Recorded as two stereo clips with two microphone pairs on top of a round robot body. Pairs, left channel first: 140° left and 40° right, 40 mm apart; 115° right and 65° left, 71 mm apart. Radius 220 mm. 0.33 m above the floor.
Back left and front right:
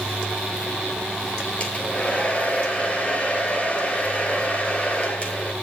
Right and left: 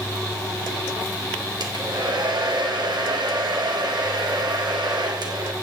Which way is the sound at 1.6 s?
80° left.